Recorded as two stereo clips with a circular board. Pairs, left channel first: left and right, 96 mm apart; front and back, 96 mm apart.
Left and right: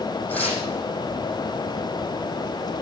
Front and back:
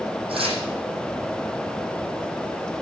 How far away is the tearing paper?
About 10 m.